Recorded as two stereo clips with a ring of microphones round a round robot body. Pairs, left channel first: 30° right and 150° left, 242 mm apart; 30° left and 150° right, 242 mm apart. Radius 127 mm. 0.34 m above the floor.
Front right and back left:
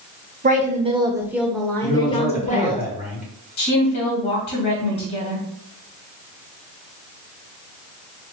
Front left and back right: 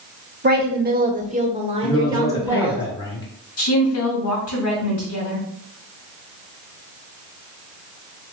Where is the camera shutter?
I don't hear a camera shutter.